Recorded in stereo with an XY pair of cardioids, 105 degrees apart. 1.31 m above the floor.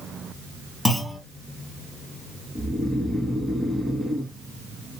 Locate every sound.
0.8 s a clunk: 15° left, 2 m
2.5 s snoring: 10° right, 1.2 m